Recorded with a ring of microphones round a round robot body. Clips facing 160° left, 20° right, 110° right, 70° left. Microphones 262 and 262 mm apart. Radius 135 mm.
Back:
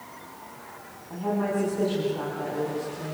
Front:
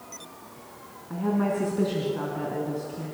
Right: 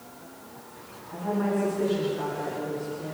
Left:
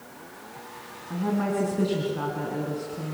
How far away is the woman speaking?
About 4.5 m.